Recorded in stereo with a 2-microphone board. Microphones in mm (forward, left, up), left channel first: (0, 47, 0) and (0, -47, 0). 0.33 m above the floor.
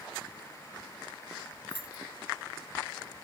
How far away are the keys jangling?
About 0.8 m.